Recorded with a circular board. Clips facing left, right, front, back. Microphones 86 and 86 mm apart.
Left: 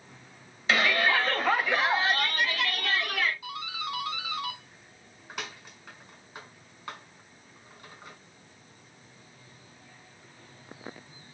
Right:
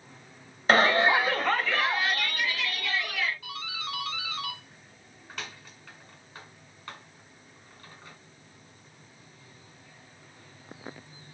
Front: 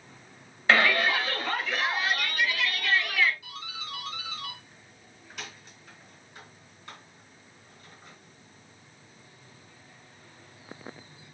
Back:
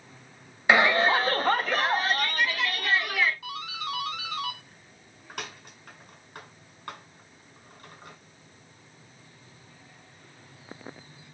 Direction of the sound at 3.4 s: 160° left.